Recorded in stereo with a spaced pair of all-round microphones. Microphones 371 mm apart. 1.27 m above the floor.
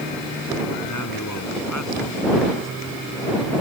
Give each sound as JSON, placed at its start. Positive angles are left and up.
{"t": 0.8, "sound": "a man speaking", "side_deg": 55}